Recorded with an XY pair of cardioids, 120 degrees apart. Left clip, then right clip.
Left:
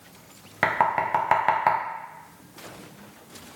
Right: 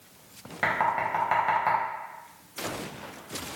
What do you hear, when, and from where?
0.6 s knocking: 45° left, 0.7 m